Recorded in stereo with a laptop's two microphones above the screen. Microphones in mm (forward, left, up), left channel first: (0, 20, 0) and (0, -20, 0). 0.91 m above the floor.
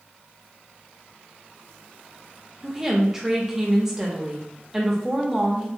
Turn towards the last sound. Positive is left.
turn(degrees=-15)  # may be behind; listen again after turning